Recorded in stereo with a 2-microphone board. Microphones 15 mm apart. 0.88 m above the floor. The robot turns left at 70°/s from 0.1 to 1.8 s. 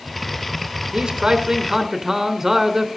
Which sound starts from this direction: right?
A man speaking, at 0.9 s.